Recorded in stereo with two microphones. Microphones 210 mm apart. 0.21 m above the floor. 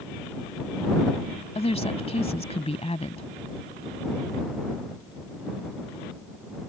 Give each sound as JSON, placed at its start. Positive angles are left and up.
{"t": 1.6, "sound": "a woman speaking", "side_deg": 30}